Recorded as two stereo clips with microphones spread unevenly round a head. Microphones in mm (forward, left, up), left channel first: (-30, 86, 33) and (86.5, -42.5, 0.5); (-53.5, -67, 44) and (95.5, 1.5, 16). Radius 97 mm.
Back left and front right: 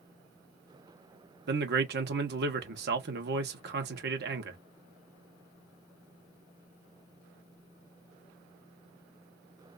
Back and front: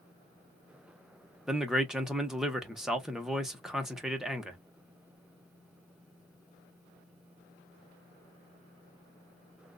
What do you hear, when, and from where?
1.5 s a man speaking: 60° right, 1.2 m